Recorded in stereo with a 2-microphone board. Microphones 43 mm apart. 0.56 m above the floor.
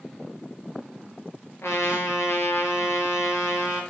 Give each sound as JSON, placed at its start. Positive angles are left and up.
{"t": 1.6, "sound": "a trumpet", "side_deg": 85, "distance_m": 5.5}